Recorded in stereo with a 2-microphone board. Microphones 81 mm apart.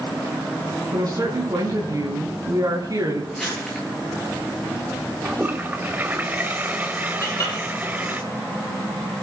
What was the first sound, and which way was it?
A woman speaking, 50° right (ahead or behind).